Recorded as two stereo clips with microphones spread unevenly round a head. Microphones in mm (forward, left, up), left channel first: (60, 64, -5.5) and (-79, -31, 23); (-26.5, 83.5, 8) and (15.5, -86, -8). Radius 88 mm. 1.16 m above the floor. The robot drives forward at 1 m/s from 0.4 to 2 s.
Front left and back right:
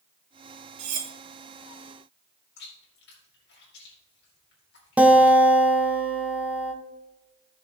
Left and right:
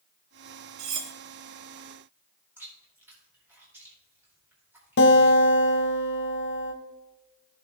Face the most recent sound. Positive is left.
turn(degrees=130)